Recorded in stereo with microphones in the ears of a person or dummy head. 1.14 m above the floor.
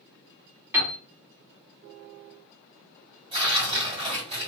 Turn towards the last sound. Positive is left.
turn(degrees=-25)  # may be behind; listen again after turning